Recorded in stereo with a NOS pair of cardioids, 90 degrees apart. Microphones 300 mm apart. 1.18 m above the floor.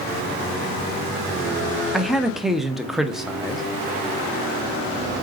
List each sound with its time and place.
1.9 s a man speaking: straight ahead, 0.9 m